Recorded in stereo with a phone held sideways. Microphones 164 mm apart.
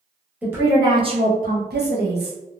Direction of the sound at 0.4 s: 10° right (ahead or behind).